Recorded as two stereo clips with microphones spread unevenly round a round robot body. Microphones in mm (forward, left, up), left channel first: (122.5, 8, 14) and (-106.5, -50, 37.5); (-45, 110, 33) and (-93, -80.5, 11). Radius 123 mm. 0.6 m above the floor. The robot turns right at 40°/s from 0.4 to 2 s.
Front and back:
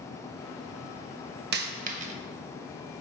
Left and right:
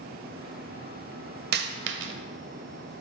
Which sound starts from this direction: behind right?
A dropped coin, at 1.5 s.